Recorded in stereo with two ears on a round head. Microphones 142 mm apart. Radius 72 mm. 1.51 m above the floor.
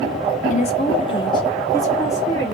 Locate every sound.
0.5 s a woman speaking: 45° left (ahead or behind), 0.7 m; by 2.5 s 15° left (ahead or behind), 1.7 m